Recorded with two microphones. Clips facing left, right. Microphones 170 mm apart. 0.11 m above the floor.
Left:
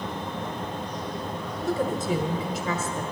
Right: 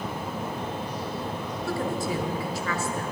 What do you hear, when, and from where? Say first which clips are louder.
1.6 s a woman speaking: left 3 dB; 20° left (ahead or behind), 1.5 m